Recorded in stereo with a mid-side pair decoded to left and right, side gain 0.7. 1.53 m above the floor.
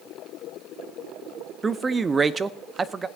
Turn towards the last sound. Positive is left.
turn(degrees=-20)